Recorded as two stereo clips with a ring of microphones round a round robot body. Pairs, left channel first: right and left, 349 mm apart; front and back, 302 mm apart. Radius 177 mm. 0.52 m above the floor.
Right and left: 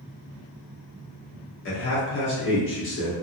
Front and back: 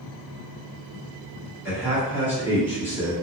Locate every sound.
1.6 s a man speaking: 105° right, 1.2 m